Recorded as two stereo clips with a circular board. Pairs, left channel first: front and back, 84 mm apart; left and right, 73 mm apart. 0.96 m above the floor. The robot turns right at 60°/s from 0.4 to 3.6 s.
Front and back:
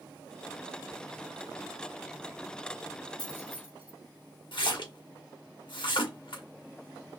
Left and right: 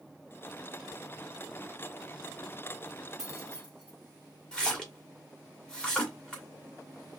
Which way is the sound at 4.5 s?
15° left.